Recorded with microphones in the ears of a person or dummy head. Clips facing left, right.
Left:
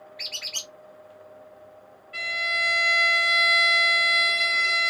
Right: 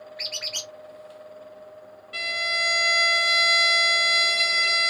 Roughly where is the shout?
I don't hear a shout.